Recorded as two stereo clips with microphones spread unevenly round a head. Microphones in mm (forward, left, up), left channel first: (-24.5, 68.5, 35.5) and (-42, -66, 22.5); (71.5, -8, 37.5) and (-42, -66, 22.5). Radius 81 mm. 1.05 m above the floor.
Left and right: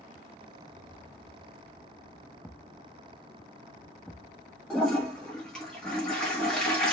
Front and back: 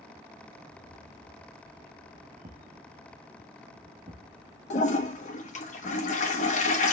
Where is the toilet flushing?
5° right, 1.4 m.